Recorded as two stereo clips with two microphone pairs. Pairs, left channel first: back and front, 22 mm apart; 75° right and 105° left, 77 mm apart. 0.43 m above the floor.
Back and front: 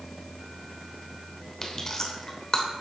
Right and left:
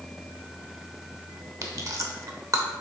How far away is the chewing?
About 1.0 m.